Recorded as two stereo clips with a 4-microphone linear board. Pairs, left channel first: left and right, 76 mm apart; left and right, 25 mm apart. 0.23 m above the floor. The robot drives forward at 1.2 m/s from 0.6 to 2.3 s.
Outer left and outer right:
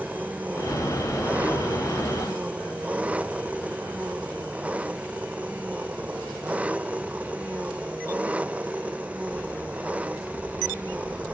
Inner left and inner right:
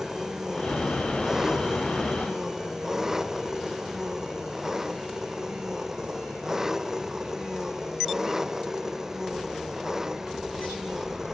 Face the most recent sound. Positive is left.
turn(degrees=-15)  # may be behind; listen again after turning